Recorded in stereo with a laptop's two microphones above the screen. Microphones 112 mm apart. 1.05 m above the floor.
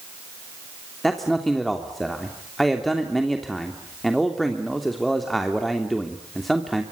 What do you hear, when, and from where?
1.0 s a man speaking: centre (ahead or behind), 3 m